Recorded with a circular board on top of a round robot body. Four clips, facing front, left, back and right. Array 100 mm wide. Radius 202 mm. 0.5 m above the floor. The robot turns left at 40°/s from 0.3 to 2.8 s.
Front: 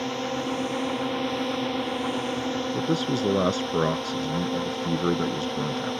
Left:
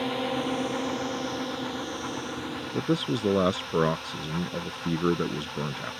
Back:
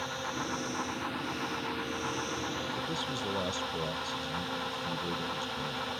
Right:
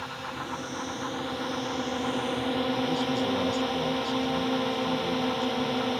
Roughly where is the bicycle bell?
I don't hear a bicycle bell.